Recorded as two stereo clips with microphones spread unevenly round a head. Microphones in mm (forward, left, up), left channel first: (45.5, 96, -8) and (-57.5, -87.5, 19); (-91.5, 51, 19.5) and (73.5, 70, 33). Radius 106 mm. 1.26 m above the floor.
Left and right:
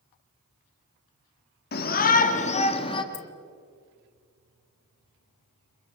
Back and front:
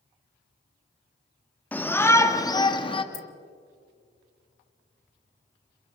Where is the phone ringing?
No phone ringing in this recording.